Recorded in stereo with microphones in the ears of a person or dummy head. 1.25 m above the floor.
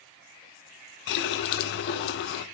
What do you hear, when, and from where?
1.1 s a running tap: 65° left (ahead or behind), 0.8 m